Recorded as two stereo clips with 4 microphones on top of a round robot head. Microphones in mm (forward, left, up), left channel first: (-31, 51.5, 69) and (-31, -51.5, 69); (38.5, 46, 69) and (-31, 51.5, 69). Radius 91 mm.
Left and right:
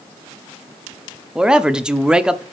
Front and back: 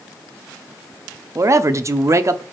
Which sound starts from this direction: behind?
A man speaking, at 1.4 s.